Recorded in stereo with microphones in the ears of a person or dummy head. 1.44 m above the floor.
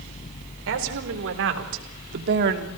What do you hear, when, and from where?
0.7 s a woman speaking: 85° right, 4.5 m; by 2.7 s 60° right (ahead or behind), 3 m